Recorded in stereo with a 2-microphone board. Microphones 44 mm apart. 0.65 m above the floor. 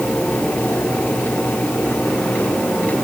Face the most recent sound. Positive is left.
No sound to turn to.